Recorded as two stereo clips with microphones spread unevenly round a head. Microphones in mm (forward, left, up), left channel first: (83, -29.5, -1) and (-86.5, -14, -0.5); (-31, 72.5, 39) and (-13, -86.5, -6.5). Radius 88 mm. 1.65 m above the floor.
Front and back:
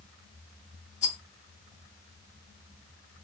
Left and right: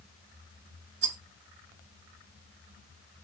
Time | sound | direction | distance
1.0 | a rattle | 55° right | 0.8 m